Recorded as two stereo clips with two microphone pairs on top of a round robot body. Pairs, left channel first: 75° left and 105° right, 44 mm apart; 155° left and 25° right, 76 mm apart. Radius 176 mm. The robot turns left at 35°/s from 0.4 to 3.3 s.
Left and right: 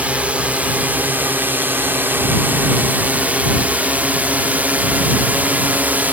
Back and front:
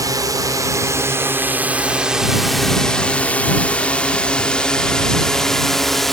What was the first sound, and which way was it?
A drone, 55° right.